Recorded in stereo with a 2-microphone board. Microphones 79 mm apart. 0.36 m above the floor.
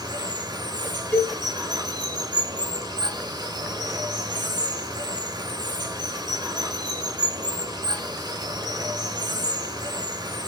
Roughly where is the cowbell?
Centre.